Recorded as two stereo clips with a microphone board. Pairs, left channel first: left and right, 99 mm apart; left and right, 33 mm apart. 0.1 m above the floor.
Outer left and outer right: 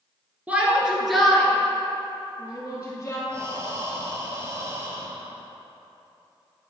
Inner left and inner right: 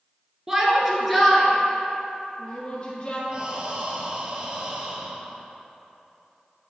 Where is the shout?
15° right (ahead or behind), 1.4 m; by 3.2 s 30° left (ahead or behind), 2.5 m.